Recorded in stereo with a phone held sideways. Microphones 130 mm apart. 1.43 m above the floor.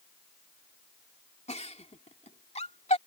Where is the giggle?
60° left (ahead or behind).